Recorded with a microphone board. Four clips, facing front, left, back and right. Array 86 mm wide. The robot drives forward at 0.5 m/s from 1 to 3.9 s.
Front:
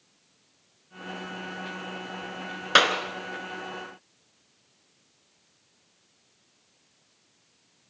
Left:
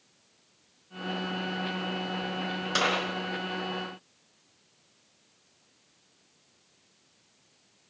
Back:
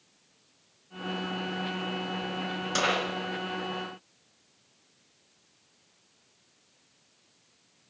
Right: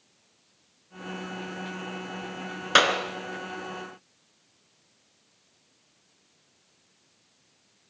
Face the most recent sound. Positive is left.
turn(degrees=-45)